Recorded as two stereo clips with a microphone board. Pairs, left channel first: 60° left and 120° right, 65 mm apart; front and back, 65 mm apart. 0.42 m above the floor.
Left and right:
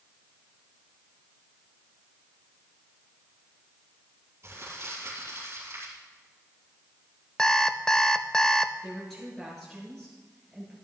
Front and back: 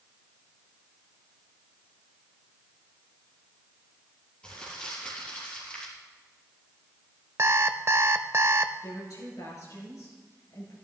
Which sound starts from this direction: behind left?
An alarm clock, at 7.4 s.